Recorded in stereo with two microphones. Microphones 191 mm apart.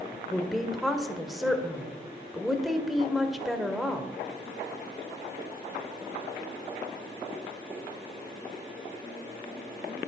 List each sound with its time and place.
0.1 s a woman speaking: centre (ahead or behind), 1.5 m